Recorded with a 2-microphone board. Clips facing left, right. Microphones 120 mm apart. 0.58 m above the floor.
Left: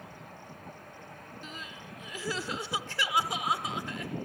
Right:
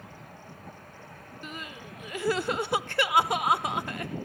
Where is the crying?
55° right (ahead or behind), 0.5 m.